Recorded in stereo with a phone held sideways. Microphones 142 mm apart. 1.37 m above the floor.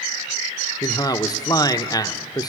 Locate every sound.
0.8 s a man speaking: 25° left (ahead or behind), 0.8 m